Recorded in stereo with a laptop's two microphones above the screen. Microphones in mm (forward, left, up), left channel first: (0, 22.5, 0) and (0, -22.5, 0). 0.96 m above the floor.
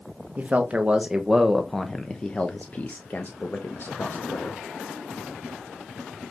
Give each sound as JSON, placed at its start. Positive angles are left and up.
{"t": 0.4, "sound": "a man speaking", "side_deg": -35, "distance_m": 1.2}